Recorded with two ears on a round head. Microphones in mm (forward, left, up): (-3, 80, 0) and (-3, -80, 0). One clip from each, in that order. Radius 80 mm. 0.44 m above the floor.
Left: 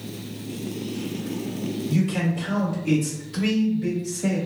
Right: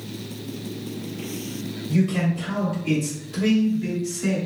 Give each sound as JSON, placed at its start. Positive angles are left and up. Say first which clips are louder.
{"t": 1.9, "sound": "a man speaking", "louder": "right 3 dB", "side_deg": 15, "distance_m": 1.4}